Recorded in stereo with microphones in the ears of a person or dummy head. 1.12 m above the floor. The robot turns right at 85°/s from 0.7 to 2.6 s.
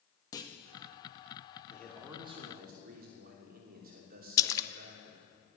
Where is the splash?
15° left (ahead or behind), 0.6 m.